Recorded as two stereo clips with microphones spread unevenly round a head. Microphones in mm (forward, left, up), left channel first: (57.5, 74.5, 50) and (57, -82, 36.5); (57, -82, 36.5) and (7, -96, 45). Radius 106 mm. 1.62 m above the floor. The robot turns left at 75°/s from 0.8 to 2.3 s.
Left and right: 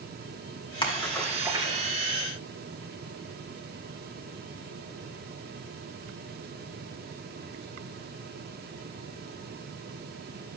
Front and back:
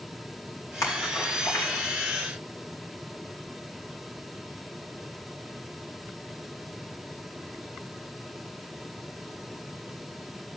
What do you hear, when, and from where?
0.8 s a splash: 30° left, 3 m; by 1.9 s 50° right, 3 m